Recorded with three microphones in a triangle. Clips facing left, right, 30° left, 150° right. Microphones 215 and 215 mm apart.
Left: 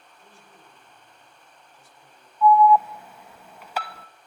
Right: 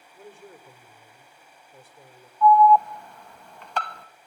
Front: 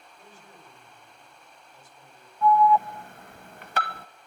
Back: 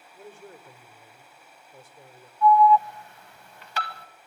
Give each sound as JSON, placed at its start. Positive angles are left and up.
{"t": 0.1, "sound": "a man speaking", "azimuth_deg": -120, "distance_m": 4.0}
{"t": 2.4, "sound": "an alarm", "azimuth_deg": 5, "distance_m": 0.9}